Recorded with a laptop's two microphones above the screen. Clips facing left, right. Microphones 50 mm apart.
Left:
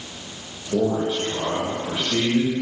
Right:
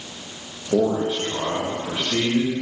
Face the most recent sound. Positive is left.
turn(degrees=-15)  # may be behind; listen again after turning